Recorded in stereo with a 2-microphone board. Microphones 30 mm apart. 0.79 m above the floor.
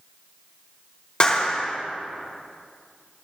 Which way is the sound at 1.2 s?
40° left (ahead or behind).